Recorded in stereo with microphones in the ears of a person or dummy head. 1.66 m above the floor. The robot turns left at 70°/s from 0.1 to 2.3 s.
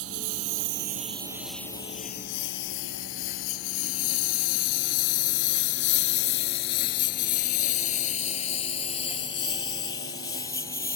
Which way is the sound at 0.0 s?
70° right (ahead or behind).